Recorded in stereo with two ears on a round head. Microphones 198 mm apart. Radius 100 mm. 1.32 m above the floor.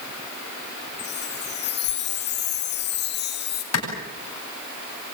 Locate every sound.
1.0 s a chime: 45° left (ahead or behind), 3.5 m
3.7 s a clap: 70° left (ahead or behind), 9.5 m